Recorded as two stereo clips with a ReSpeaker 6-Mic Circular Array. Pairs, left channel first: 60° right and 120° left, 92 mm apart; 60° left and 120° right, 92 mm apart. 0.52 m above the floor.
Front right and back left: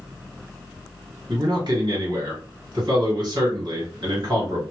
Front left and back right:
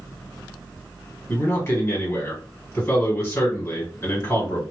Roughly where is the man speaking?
Behind left.